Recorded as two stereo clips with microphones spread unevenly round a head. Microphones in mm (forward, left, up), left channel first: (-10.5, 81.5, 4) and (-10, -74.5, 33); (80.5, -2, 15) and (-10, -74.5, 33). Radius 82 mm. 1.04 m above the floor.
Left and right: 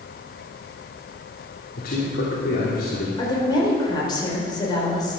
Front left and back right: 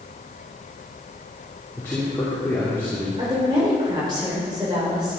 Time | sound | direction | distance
1.8 | a man speaking | 115° left | 3 m
3.2 | a woman speaking | 155° left | 4.5 m